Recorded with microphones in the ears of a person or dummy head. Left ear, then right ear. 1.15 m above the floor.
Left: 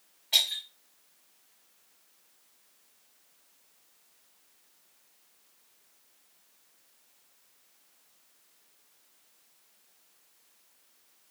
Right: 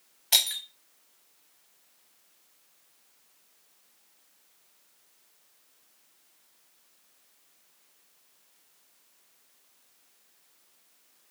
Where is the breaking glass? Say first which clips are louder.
Right 1 dB; 55° right (ahead or behind), 0.6 m.